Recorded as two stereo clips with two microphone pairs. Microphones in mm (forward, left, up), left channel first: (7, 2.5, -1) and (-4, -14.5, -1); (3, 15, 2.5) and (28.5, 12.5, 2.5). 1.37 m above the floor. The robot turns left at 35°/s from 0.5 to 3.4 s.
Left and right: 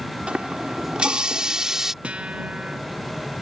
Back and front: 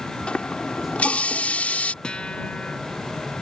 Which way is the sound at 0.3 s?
145° right.